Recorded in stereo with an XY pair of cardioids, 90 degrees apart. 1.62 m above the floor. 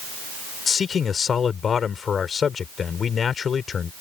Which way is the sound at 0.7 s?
55° left.